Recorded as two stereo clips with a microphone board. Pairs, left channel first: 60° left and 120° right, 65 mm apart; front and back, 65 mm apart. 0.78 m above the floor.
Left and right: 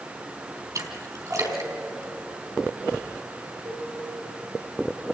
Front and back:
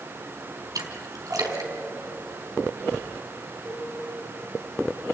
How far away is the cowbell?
About 5 m.